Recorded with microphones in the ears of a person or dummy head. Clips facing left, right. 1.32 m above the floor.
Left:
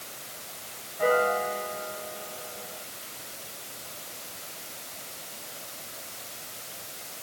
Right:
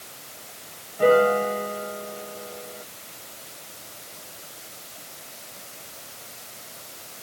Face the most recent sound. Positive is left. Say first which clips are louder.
# right 7 dB
turn(degrees=-60)  # may be behind; listen again after turning